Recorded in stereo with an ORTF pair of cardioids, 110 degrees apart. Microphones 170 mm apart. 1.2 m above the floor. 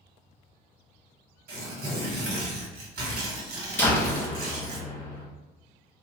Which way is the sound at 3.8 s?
15° left.